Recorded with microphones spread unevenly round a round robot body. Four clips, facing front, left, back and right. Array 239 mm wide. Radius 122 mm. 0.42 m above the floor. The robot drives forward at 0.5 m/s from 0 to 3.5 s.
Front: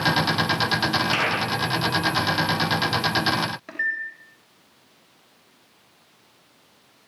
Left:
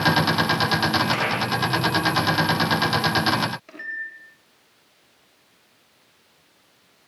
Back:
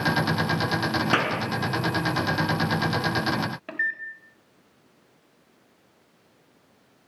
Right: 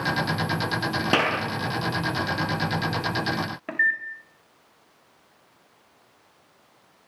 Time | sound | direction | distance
1.1 | a clap | 115° right | 5 m
3.7 | a microwave | 90° right | 2.5 m